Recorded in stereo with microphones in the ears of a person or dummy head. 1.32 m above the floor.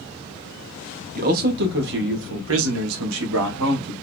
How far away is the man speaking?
About 1.6 m.